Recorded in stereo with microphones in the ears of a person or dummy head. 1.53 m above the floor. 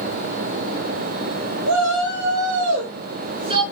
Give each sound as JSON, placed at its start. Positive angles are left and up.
{"t": 1.7, "sound": "a shout", "side_deg": -75, "distance_m": 1.4}